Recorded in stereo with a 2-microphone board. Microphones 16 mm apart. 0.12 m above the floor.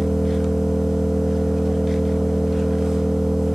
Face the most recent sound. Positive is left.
turn(degrees=-60)  # may be behind; listen again after turning